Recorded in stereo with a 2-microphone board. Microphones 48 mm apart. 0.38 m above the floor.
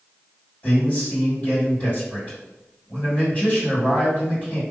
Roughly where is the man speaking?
Left.